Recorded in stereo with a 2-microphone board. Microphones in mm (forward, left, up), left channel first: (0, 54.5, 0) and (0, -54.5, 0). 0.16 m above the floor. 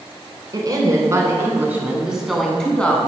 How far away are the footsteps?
I don't hear footsteps.